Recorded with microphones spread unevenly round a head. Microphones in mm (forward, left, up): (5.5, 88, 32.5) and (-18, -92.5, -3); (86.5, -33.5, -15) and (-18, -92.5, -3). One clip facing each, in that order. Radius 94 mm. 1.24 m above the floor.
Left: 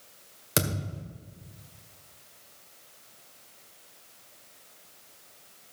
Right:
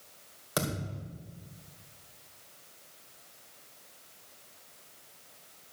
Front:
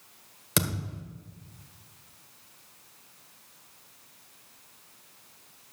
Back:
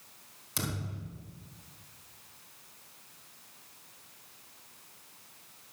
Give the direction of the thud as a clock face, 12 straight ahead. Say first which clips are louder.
Left 3 dB, front 6 dB; 11 o'clock.